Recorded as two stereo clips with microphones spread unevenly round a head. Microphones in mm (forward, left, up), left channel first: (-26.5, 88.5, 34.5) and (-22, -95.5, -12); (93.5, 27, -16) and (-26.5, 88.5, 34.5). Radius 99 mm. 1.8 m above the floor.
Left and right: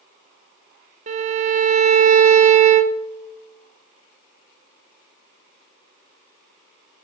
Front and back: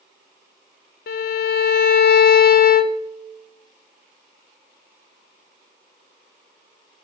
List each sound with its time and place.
1.1 s a violin: 35° right, 0.5 m